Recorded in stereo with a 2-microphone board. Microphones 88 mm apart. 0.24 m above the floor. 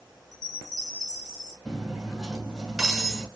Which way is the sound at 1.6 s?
5° right (ahead or behind).